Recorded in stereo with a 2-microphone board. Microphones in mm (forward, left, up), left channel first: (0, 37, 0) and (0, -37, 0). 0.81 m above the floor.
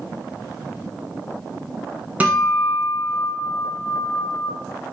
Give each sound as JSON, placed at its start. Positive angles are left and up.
{"t": 2.2, "sound": "a guitar", "side_deg": -20, "distance_m": 1.7}